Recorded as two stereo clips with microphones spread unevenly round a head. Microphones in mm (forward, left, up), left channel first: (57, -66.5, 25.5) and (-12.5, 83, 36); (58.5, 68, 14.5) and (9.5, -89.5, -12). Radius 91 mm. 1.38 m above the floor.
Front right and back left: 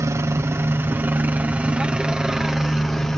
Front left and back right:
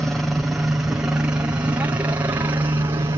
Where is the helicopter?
175° left; by 3.2 s 145° right.